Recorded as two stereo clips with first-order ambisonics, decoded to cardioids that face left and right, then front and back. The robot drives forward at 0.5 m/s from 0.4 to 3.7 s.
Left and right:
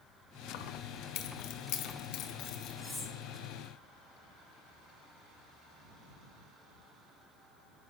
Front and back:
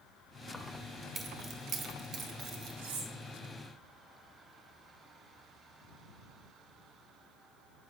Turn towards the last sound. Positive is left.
turn(degrees=180)